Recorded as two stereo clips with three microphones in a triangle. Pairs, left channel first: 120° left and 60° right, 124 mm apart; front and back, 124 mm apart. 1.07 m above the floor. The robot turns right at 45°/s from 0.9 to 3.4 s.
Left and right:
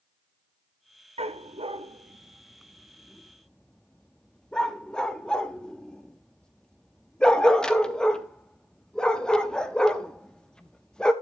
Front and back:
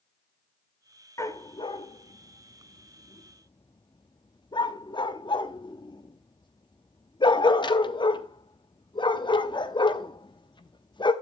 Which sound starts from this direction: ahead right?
A dog barking, at 1.2 s.